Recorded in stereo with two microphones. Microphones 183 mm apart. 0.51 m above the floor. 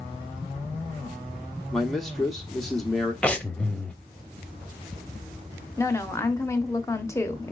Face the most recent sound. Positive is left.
turn(degrees=15)  # may be behind; listen again after turning